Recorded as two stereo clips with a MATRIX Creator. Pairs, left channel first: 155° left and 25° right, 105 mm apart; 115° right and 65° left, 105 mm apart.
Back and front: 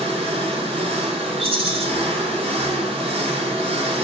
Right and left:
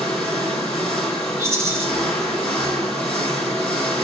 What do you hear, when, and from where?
0.0 s an engine running: 30° right, 3 m
1.4 s a rattle: 5° left, 1.9 m